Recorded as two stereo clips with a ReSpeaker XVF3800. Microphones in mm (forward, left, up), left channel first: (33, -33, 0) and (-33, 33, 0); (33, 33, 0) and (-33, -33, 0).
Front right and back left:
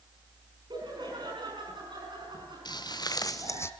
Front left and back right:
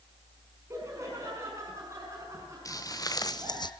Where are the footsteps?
5° right, 2 m; by 3.7 s 15° left, 0.9 m.